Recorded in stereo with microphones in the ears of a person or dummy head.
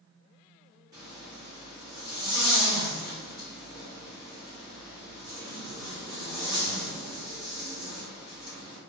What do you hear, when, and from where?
0.9 s a zipper: 15° right (ahead or behind), 1.0 m